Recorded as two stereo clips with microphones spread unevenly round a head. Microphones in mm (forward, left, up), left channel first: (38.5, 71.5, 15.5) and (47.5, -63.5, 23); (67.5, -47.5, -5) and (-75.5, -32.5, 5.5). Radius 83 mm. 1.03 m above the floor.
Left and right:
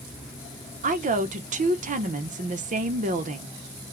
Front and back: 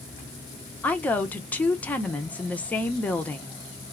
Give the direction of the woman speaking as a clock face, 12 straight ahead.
3 o'clock.